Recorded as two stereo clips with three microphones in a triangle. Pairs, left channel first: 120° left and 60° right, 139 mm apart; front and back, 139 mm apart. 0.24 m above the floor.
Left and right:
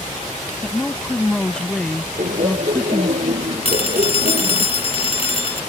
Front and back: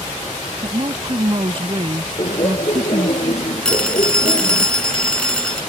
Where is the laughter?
45° right.